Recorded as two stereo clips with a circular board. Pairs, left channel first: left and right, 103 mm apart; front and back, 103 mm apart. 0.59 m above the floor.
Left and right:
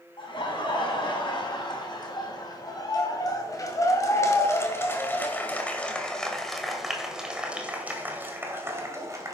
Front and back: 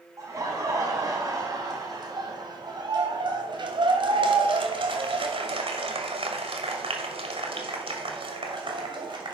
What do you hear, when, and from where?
0.2 s laughter: 125° left, 4 m; by 9.3 s 145° right, 2.5 m